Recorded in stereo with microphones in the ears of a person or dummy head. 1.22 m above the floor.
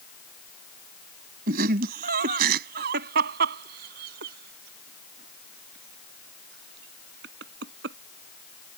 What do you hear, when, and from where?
1.5 s laughter: 60° right (ahead or behind); by 8.0 s 75° right (ahead or behind)